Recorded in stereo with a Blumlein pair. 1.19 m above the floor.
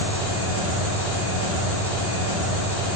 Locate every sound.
0.0 s an engine running: 60° left, 1.4 m